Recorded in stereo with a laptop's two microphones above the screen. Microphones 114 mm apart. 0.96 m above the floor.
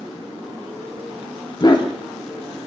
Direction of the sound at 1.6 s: 40° left (ahead or behind).